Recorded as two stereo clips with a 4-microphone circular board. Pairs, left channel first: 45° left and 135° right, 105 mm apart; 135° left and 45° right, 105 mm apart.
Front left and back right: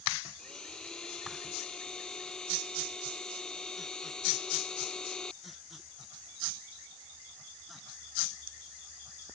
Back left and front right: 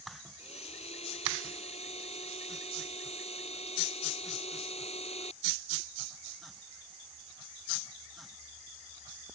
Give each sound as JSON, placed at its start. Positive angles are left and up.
{"t": 0.4, "sound": "a blender", "azimuth_deg": 130}